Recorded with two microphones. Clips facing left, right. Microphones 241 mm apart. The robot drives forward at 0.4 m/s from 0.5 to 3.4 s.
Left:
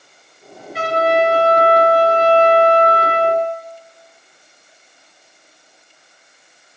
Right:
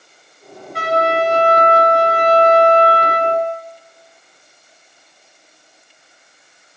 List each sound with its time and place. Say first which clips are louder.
0.7 s a trumpet: left 1 dB; 5° left (ahead or behind), 1.9 m; by 3.4 s centre (ahead or behind), 3 m